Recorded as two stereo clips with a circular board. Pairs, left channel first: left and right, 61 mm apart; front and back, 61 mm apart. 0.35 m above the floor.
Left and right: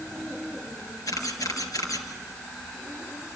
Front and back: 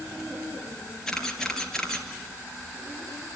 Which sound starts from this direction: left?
A camera shutter, at 1.1 s.